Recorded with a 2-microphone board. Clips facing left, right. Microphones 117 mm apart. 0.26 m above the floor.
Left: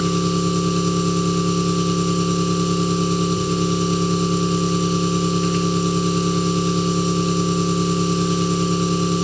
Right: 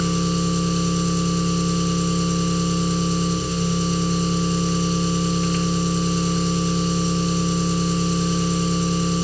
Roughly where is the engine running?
Left.